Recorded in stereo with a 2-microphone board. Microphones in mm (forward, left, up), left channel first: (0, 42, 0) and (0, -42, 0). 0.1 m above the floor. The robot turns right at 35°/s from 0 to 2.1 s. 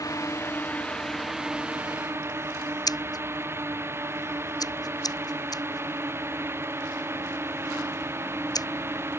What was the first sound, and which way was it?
A drone, 135° left.